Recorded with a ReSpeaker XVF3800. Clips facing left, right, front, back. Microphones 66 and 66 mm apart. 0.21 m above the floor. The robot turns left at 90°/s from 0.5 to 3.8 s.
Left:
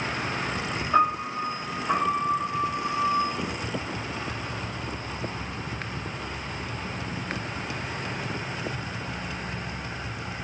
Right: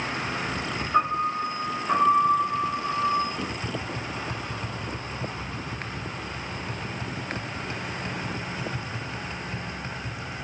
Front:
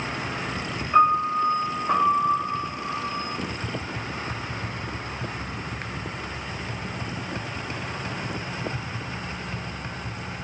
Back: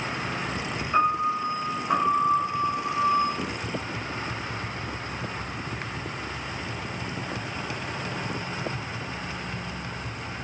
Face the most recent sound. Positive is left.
turn(degrees=-50)